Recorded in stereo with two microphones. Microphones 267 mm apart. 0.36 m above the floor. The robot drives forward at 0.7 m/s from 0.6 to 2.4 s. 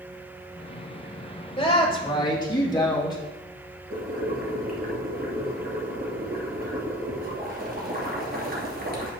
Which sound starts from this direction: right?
Boiling, at 3.9 s.